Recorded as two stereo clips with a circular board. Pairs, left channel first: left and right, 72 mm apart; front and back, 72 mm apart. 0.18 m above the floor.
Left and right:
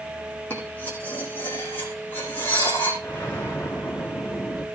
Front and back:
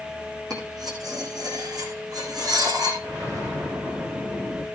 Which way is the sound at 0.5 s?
155° left.